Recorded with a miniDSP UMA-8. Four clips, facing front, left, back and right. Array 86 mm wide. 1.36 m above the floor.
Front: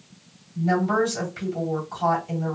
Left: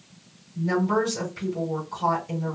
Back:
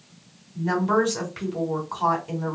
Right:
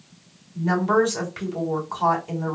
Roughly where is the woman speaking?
Behind right.